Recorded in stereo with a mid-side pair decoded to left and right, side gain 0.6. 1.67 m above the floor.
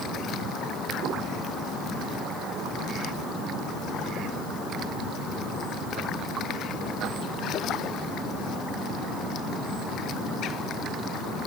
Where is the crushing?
No crushing in this recording.